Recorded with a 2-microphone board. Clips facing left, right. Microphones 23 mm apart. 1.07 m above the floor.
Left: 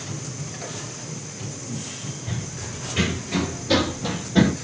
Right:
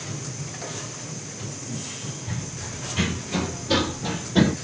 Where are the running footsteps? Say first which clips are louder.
Left 1 dB; 30° left (ahead or behind), 1.5 m; by 4.5 s 10° left (ahead or behind), 1.0 m.